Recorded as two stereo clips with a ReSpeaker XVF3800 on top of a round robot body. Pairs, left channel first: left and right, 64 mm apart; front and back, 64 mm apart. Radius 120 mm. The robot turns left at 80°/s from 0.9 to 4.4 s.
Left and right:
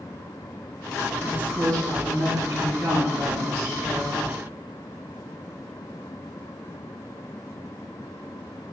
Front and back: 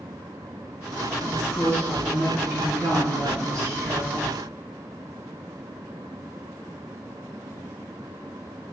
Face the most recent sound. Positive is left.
turn(degrees=85)